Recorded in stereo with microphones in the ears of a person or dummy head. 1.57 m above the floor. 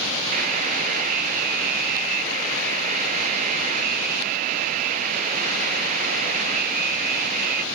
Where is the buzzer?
40° right (ahead or behind), 0.6 m.